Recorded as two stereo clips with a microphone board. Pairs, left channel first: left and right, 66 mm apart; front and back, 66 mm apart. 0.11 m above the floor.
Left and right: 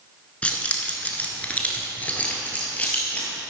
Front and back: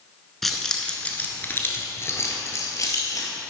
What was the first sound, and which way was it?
Keys jangling, 80° left.